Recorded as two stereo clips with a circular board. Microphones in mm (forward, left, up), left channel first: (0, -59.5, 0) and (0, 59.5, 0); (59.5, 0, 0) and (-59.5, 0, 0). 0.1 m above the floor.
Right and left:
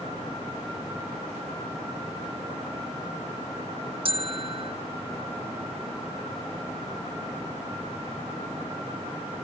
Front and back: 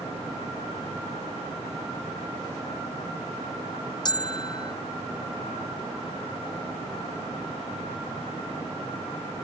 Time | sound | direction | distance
4.0 | a bell | 50° left | ?